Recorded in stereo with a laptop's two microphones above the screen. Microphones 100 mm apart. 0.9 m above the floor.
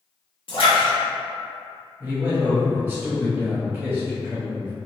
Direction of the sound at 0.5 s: 60° left (ahead or behind).